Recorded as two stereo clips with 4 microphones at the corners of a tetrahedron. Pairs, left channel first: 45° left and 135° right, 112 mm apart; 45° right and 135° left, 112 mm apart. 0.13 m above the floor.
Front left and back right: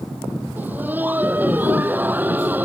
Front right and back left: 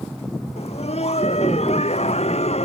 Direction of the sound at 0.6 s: 60° right.